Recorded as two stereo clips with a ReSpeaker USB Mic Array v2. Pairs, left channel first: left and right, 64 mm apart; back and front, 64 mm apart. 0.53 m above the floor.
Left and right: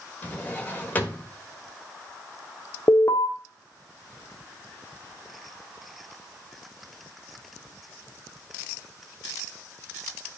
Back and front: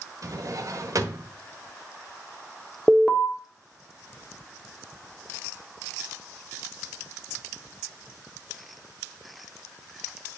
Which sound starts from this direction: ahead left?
A drawer, at 0.2 s.